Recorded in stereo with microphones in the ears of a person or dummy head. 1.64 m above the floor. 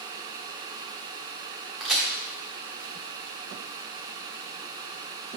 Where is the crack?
Centre (ahead or behind), 0.8 m.